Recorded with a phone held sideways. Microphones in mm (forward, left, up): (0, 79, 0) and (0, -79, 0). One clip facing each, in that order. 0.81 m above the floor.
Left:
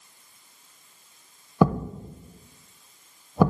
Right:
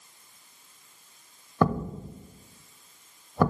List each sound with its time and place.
1.6 s a thud: 15° left (ahead or behind), 0.6 m